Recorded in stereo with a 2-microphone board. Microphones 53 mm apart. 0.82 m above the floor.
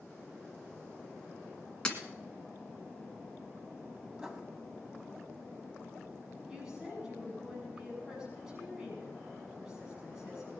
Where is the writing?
20° right (ahead or behind), 1.8 m.